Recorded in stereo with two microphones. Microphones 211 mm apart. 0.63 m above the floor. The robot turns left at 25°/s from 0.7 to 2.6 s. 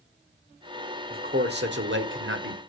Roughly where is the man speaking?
Ahead right.